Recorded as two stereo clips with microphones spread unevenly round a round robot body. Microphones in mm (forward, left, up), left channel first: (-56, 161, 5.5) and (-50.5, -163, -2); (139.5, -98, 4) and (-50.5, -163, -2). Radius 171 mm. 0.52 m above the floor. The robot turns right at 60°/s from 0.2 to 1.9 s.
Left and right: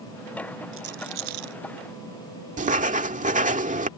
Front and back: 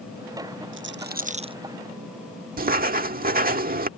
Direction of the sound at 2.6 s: 145° right.